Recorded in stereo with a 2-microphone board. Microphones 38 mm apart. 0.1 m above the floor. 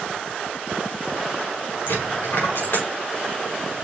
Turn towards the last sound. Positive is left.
turn(degrees=70)  # may be behind; listen again after turning